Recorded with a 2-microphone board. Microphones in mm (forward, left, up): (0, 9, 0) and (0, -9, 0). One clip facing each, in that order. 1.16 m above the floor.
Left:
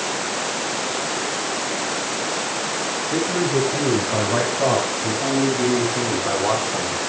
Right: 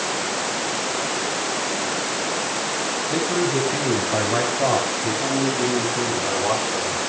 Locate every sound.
3.1 s a man speaking: 20° right (ahead or behind), 8 m; by 7.0 s 25° left (ahead or behind), 6 m